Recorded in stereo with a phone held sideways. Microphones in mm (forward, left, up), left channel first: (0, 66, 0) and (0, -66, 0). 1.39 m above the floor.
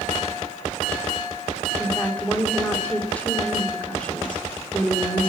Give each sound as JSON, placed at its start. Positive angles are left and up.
{"t": 1.8, "sound": "a woman speaking", "side_deg": 10, "distance_m": 3.5}